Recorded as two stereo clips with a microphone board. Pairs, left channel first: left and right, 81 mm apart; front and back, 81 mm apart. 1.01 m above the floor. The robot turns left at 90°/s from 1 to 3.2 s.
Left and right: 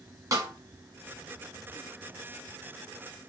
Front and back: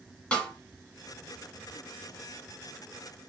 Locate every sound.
0.3 s a snare drum: 70° right, 1.2 m